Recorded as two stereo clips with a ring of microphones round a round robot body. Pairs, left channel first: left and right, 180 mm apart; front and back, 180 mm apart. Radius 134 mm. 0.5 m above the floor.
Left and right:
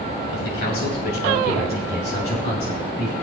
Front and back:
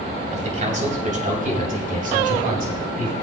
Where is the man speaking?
130° left, 3 m; by 3.1 s 145° left, 4.5 m.